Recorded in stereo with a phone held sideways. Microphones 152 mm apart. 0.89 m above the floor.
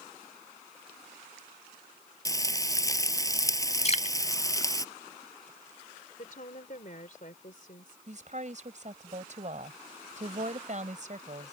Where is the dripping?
45° left (ahead or behind).